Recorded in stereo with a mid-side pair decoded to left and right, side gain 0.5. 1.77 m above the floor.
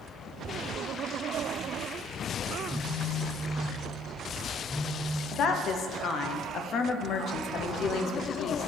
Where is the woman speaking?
60° left, 0.8 m.